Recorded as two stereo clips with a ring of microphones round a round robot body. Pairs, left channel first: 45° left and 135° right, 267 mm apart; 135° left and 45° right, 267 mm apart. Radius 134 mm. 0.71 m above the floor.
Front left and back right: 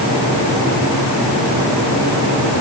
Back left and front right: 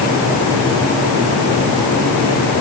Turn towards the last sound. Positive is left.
No sound to turn to.